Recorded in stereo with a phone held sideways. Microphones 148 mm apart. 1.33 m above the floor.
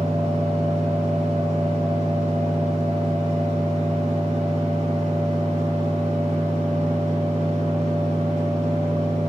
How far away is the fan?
About 2 m.